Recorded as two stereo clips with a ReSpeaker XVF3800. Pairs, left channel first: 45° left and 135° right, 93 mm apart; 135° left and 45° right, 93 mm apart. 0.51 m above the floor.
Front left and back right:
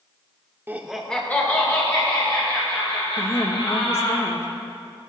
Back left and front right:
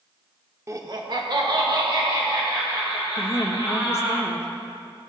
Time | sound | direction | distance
0.7 | laughter | 85° right | 1.0 m
3.2 | a woman speaking | 90° left | 1.0 m